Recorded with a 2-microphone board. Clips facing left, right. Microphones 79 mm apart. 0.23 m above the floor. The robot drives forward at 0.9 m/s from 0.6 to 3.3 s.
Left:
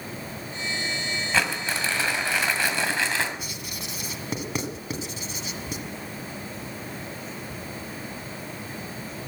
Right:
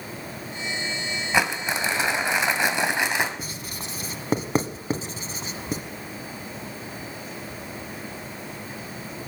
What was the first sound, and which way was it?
Crumpling, 20° right (ahead or behind).